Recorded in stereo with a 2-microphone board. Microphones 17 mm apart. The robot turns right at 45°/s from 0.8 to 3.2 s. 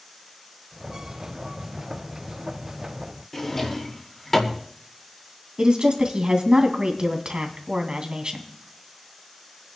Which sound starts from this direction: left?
A drawer, at 3.3 s.